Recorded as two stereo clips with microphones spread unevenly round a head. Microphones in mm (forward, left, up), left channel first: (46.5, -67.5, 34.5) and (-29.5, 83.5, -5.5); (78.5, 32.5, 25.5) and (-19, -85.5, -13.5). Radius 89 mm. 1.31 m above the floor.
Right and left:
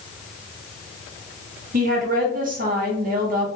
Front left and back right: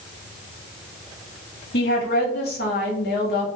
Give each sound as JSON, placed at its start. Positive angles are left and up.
{"t": 1.7, "sound": "a woman speaking", "azimuth_deg": 75, "distance_m": 1.0}